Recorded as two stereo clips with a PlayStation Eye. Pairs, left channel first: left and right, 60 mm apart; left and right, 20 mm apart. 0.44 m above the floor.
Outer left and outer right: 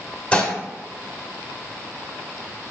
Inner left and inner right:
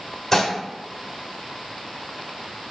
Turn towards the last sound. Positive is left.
turn(degrees=20)  # may be behind; listen again after turning